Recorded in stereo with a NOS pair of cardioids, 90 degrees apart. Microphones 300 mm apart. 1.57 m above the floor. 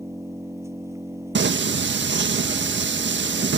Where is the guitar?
No guitar in this recording.